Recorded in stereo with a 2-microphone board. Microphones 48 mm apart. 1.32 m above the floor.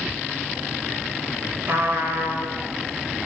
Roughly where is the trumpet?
Right.